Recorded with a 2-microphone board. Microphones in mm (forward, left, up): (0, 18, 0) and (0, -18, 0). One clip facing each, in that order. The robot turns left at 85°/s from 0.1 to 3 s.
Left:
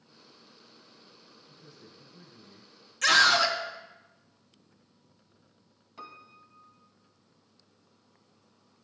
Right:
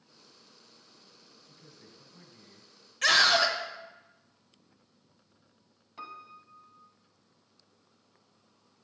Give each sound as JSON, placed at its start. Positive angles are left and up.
{"t": 1.5, "sound": "a man speaking", "azimuth_deg": -55, "distance_m": 1.8}
{"t": 3.0, "sound": "a scream", "side_deg": -20, "distance_m": 1.1}
{"t": 6.0, "sound": "a piano", "side_deg": -5, "distance_m": 0.7}